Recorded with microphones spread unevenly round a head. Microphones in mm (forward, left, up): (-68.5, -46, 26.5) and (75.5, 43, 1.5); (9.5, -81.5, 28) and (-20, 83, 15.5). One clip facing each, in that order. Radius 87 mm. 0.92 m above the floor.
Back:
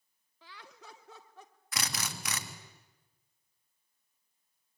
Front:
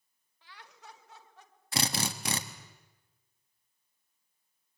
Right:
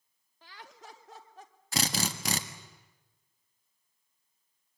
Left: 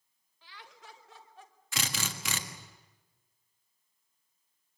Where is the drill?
25° right, 1.7 m.